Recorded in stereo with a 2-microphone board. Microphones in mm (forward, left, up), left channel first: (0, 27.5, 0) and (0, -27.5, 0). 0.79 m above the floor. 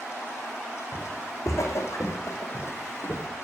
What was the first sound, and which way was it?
Footsteps, 70° left (ahead or behind).